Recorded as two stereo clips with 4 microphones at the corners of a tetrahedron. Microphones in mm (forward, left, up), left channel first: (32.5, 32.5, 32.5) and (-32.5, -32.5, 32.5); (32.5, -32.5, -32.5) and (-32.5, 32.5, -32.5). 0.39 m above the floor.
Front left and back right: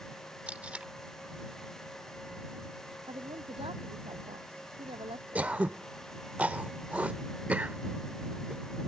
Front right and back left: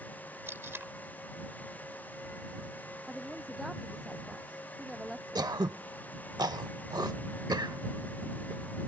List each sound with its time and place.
0.5 s tape being pulled: 165° left
3.1 s a woman speaking: 140° right
5.3 s throat clearing: 155° left